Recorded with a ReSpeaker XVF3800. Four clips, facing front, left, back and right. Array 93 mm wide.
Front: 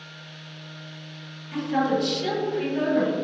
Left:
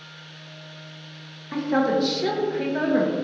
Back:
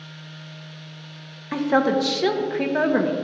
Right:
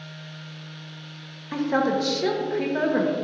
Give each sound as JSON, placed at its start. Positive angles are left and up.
{"t": 1.5, "sound": "a woman speaking", "azimuth_deg": -175, "distance_m": 1.0}